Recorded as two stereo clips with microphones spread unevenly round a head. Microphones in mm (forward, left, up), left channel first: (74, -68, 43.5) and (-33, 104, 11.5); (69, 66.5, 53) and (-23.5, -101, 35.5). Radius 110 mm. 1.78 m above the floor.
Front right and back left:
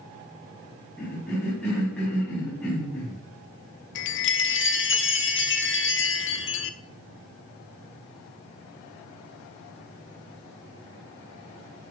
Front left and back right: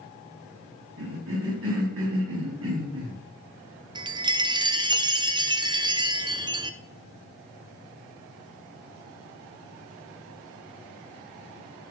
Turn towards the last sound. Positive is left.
turn(degrees=-50)